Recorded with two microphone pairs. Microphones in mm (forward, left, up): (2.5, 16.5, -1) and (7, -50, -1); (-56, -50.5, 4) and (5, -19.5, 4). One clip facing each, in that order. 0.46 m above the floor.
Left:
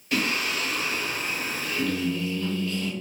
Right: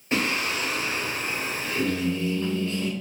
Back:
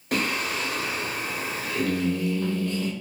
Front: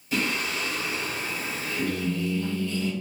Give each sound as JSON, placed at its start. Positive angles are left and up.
{"t": 0.1, "sound": "singing", "azimuth_deg": -145, "distance_m": 1.7}